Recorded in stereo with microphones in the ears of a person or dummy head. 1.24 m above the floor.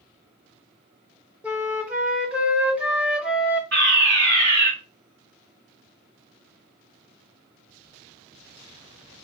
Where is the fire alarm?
55° right (ahead or behind), 2.5 m.